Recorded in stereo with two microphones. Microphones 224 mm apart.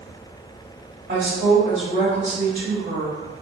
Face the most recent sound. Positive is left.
turn(degrees=-45)  # may be behind; listen again after turning